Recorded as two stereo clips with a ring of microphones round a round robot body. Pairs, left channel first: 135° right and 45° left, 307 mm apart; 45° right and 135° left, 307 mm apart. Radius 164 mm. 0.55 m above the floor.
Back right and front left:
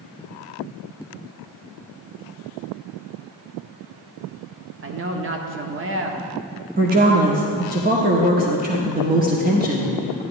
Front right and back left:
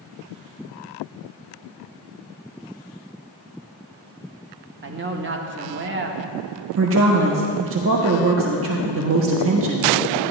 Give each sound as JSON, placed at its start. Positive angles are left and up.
{"t": 4.8, "sound": "a man speaking", "azimuth_deg": 90, "distance_m": 1.0}
{"t": 6.8, "sound": "a woman speaking", "azimuth_deg": 100, "distance_m": 0.9}